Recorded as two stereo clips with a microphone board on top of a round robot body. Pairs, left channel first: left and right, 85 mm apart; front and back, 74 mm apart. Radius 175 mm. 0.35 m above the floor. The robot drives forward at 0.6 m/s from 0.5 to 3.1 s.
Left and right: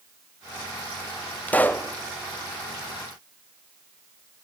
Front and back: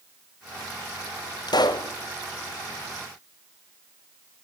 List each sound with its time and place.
1.5 s a pop: 20° left, 1.4 m